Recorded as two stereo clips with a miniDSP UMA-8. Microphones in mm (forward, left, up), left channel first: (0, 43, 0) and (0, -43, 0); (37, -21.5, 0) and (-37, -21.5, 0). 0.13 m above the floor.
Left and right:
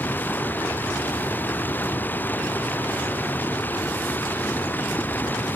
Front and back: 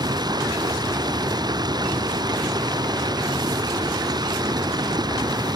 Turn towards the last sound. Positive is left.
turn(degrees=160)